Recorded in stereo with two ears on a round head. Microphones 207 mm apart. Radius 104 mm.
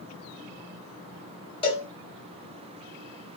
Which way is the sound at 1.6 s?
20° left (ahead or behind).